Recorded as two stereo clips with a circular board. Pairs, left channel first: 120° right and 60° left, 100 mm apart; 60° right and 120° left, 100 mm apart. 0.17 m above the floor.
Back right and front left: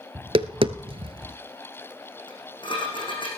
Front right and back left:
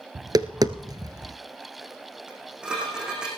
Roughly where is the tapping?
Left.